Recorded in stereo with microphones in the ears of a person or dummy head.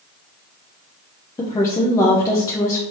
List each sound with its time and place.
1.4 s a woman speaking: 15° left (ahead or behind), 0.5 m